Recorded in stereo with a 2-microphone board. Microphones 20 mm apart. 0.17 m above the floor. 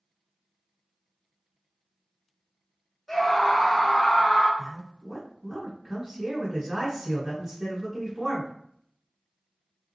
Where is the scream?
15° left (ahead or behind), 1.6 m; by 4.5 s 35° left (ahead or behind), 1.3 m.